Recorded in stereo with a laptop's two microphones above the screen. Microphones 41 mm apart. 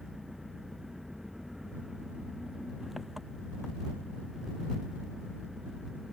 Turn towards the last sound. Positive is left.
turn(degrees=-5)  # may be behind; listen again after turning